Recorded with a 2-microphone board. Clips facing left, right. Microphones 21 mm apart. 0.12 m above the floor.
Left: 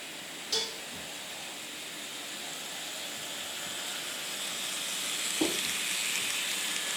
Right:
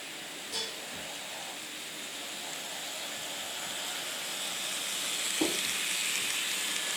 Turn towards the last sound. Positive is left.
turn(degrees=50)  # may be behind; listen again after turning